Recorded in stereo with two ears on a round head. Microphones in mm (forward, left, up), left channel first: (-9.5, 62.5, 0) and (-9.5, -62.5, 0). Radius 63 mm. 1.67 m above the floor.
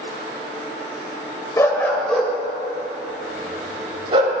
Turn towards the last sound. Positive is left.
turn(degrees=-40)  # may be behind; listen again after turning